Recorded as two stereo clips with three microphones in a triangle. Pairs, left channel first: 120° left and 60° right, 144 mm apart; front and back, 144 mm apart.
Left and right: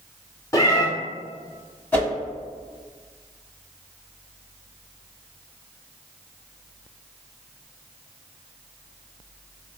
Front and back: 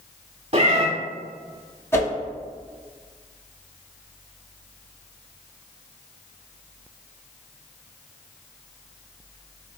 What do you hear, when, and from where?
0.5 s a cat meowing: 175° left, 0.7 m
1.9 s a whoosh: 60° left, 1.3 m